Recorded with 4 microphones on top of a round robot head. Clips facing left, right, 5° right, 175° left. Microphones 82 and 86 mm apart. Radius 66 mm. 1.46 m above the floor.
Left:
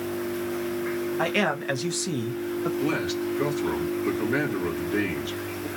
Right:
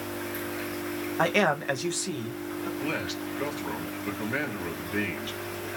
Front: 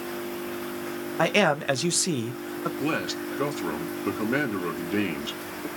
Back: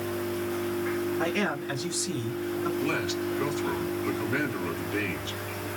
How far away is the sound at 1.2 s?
About 0.6 m.